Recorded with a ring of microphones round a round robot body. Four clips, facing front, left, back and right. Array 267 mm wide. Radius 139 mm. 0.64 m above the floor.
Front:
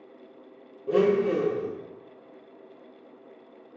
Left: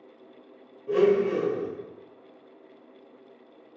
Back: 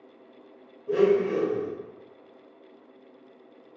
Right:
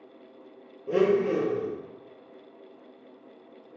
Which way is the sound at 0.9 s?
35° right.